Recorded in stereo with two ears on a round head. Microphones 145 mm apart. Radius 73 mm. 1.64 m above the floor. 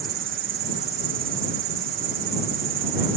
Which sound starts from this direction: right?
An insect, at 0.0 s.